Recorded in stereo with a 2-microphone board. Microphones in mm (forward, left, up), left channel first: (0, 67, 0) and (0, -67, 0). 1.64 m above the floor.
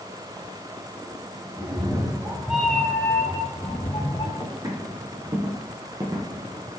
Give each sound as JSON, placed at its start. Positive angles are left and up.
{"t": 1.6, "sound": "a cat meowing", "side_deg": -35, "distance_m": 1.4}
{"t": 4.4, "sound": "footsteps", "side_deg": -30, "distance_m": 3.0}